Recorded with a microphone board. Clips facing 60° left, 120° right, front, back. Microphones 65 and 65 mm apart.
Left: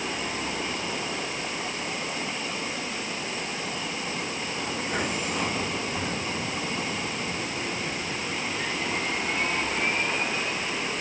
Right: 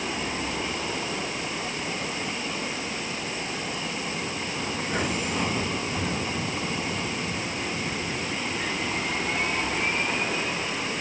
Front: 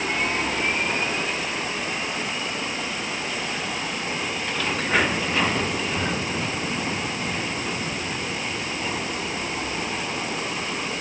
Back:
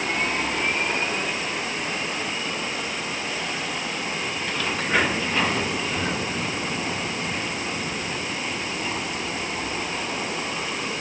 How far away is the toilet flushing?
No toilet flushing in this recording.